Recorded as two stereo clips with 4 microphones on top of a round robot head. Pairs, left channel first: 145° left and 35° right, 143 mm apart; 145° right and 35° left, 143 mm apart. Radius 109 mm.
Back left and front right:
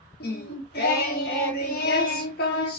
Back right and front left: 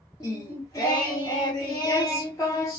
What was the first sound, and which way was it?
Singing, 150° left.